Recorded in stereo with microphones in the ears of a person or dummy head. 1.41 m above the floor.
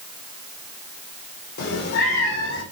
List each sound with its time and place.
1.6 s a cat meowing: 60° left (ahead or behind), 2 m; by 2.6 s 70° left (ahead or behind), 3 m